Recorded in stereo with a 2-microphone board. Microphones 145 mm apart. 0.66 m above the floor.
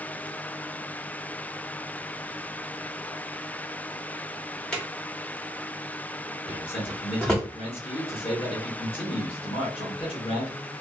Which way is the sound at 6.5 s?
40° left (ahead or behind).